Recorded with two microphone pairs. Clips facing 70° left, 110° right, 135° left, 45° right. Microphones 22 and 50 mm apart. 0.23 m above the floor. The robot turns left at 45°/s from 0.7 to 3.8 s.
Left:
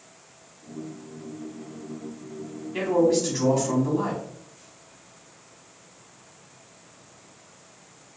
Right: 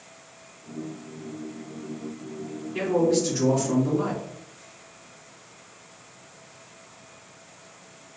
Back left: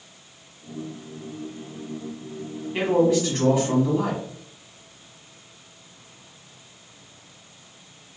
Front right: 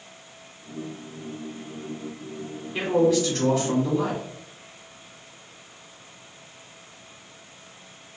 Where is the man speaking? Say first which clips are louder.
Left 1 dB, back left 1 dB; 100° left, 1.4 m; by 4.2 s 50° left, 1.4 m.